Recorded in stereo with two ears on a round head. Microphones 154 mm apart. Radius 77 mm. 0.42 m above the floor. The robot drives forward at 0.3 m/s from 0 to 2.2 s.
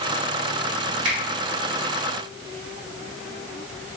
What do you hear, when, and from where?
1.1 s a finger snap: 50° right (ahead or behind), 1.8 m